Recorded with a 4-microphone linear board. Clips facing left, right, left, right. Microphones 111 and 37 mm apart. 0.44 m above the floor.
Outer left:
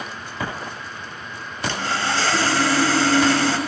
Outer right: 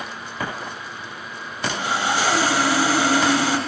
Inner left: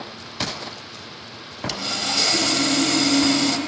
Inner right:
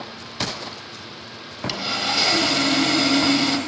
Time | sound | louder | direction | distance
1.7 | sawing | outer right 1 dB, inner right 2 dB | 15° right (ahead or behind) | 0.9 m